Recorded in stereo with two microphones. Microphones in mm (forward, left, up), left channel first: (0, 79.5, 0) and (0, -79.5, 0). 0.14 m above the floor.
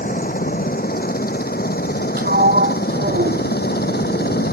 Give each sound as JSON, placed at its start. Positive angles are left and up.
{"t": 0.0, "sound": "a helicopter", "side_deg": 60}
{"t": 2.2, "sound": "a sliding door", "side_deg": -70}